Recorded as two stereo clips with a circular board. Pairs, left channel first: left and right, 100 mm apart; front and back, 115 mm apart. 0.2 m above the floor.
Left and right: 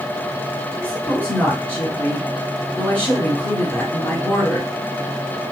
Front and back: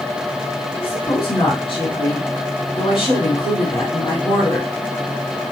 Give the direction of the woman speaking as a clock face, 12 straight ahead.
11 o'clock.